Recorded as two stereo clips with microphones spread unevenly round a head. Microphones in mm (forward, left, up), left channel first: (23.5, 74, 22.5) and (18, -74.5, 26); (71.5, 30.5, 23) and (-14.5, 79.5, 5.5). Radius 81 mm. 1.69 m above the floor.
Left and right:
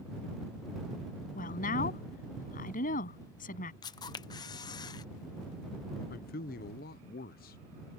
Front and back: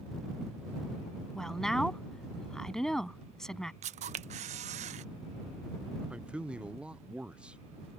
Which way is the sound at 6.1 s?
65° left.